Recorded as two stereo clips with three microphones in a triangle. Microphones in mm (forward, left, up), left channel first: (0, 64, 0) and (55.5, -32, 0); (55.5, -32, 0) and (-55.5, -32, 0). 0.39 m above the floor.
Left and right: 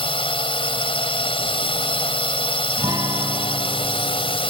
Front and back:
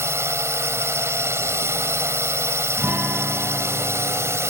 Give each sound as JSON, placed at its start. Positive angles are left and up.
{"t": 0.0, "sound": "a drone", "azimuth_deg": 120}
{"t": 2.8, "sound": "a guitar", "azimuth_deg": -110}